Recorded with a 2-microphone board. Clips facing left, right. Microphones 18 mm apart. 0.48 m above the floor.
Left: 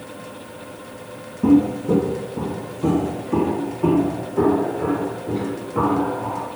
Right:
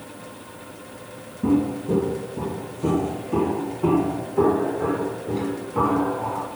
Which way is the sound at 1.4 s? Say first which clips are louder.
Left 5 dB; 35° left (ahead or behind).